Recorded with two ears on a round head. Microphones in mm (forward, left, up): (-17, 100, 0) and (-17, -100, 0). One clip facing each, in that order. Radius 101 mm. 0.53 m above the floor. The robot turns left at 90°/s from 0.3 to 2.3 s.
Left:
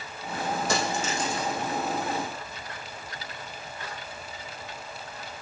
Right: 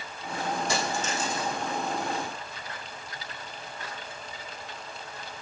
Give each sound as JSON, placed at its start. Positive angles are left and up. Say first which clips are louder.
{"t": 0.7, "sound": "a dropped coin", "louder": "left 2 dB", "azimuth_deg": 40, "distance_m": 4.5}